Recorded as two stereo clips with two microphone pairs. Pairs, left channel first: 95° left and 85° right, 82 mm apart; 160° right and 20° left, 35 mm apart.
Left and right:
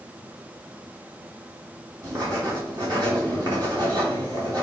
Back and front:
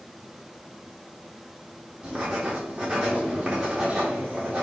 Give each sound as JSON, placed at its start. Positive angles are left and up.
{"t": 2.0, "sound": "writing", "azimuth_deg": -50, "distance_m": 4.5}